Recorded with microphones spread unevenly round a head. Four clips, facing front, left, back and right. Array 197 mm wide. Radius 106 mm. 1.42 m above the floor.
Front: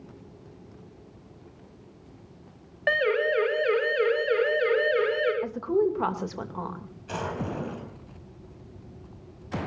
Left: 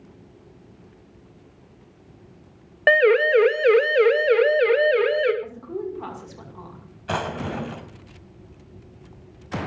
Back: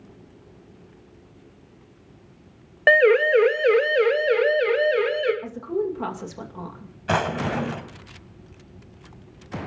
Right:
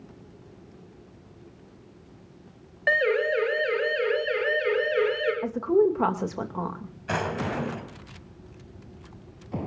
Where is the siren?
135° left, 2 m; by 5.3 s 95° left, 3.5 m.